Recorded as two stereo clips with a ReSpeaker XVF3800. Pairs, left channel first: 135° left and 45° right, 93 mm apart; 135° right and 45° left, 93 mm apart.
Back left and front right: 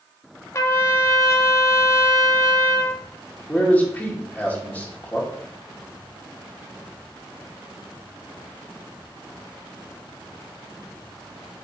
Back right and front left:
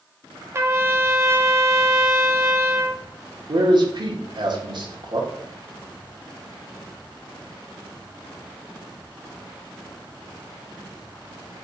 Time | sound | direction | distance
0.5 | a trumpet | 90° left | 1.2 m
3.5 | a man speaking | 60° left | 2 m